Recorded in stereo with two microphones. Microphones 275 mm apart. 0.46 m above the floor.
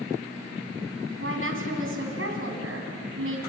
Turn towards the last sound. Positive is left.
turn(degrees=-50)  # may be behind; listen again after turning